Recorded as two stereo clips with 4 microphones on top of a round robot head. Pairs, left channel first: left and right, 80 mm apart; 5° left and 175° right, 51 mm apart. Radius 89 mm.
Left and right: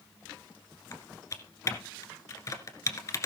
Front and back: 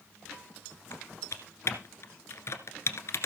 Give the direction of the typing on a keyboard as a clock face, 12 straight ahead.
11 o'clock.